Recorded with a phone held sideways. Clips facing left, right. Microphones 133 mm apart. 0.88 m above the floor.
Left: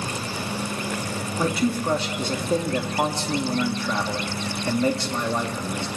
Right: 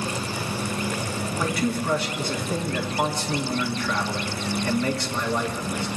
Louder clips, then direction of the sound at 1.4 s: Left 3 dB; 25° left (ahead or behind).